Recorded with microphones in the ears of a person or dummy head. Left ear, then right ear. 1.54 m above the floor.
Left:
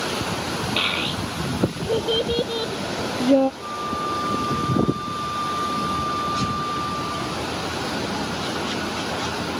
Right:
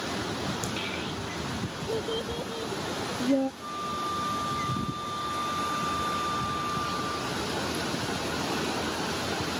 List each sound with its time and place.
0.8 s a child speaking: 35° left (ahead or behind)
3.6 s a flute: 5° right (ahead or behind)